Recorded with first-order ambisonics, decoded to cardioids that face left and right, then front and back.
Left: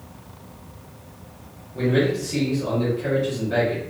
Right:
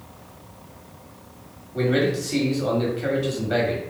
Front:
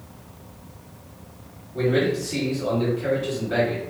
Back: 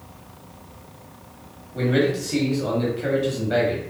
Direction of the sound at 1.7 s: 115° right.